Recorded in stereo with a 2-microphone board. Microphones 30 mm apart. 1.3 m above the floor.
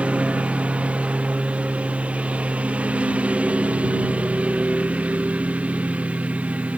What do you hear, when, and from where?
0.0 s a lawn mower: 45° right (ahead or behind); by 6.8 s 50° right (ahead or behind)